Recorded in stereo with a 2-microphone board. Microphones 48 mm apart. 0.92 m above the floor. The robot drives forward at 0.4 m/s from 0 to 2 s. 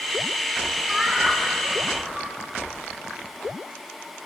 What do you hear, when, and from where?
0.9 s laughter: centre (ahead or behind), 5 m